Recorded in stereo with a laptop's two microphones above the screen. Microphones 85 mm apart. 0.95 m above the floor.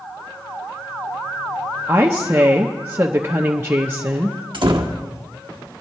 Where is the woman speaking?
30° right (ahead or behind), 0.7 m.